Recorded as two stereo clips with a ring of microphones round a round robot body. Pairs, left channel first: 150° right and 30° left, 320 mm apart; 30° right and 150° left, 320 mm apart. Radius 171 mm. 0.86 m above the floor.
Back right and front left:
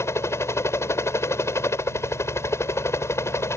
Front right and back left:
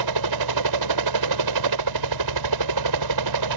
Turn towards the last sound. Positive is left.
turn(degrees=130)